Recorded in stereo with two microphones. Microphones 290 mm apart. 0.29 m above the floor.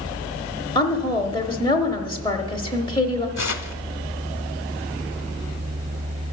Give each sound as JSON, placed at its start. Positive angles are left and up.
{"t": 0.8, "sound": "a woman speaking", "side_deg": 15, "distance_m": 0.9}
{"t": 3.4, "sound": "tearing paper", "side_deg": 65, "distance_m": 0.6}